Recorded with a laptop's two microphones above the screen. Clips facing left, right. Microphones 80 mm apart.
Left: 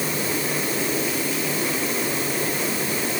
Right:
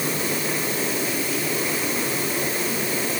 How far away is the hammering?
I don't hear hammering.